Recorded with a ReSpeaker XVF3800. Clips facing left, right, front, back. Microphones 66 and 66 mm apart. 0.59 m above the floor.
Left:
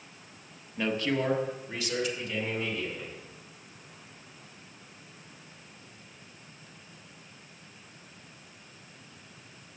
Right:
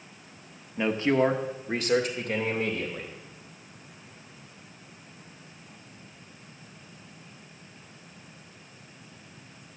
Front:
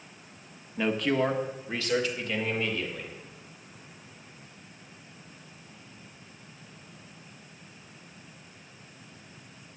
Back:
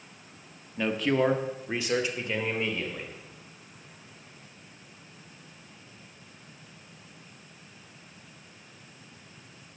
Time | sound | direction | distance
0.8 | a man speaking | 70° right | 1.1 m